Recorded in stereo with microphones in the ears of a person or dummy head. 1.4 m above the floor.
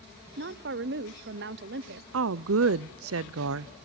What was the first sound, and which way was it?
A woman speaking, 50° right (ahead or behind).